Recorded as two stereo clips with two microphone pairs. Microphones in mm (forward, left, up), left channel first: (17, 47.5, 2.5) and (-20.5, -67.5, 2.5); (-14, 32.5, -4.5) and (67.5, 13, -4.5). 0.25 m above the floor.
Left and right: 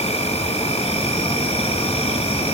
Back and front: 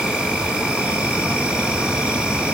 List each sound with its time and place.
0.0 s an insect: 65° left, 3 m